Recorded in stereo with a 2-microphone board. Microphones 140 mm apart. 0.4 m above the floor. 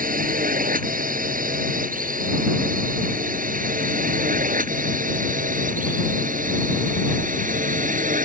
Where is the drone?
70° right (ahead or behind); by 8.2 s 65° right (ahead or behind).